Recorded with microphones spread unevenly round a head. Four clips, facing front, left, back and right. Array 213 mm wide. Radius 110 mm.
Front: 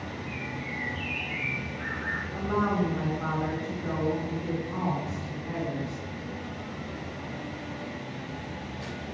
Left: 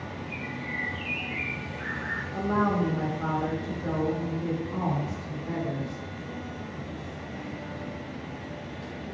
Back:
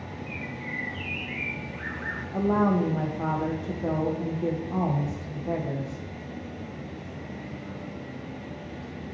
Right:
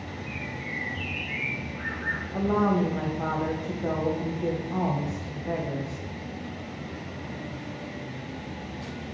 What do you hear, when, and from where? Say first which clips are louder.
0.3 s a bird: even, even; 165° right, 1.2 m
2.3 s a woman speaking: right 2 dB, back 4 dB; 155° right, 2.5 m